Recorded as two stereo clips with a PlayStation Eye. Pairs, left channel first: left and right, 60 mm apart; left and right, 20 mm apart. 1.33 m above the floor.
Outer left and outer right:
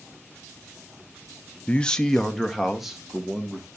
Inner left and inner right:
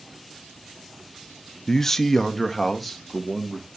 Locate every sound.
1.7 s a man speaking: 25° left (ahead or behind), 0.6 m; by 3.7 s 10° right (ahead or behind), 2 m